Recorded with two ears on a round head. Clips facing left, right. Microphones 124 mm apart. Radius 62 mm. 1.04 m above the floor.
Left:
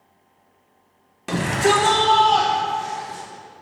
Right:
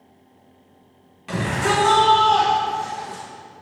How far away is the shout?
About 1.1 m.